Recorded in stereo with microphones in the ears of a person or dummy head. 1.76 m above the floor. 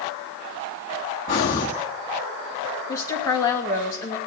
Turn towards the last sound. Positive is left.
turn(degrees=15)  # may be behind; listen again after turning